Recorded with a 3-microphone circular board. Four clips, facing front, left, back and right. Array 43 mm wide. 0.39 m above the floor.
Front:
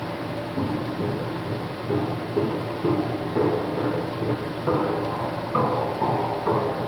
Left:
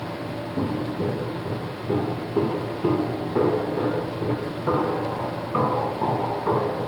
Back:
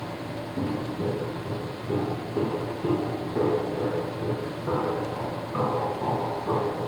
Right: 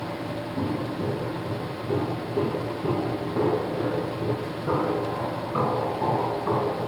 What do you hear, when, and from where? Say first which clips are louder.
0.6 s footsteps: left 3 dB, front 2 dB; 90° left, 4.5 m; by 6.9 s 35° left, 4 m